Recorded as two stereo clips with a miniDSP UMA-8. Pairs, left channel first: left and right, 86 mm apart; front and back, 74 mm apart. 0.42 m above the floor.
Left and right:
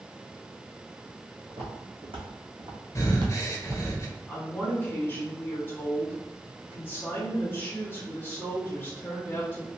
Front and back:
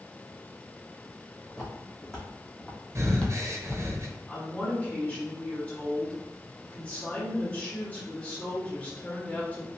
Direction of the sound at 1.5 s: 85° right.